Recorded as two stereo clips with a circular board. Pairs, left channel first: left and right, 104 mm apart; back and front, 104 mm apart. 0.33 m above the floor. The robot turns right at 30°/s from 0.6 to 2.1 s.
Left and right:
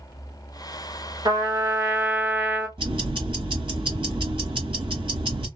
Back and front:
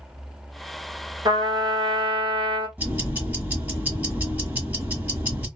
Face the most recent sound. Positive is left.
turn(degrees=-70)